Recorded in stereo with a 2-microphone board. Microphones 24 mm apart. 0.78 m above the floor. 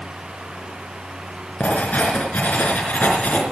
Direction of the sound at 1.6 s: 70° left (ahead or behind).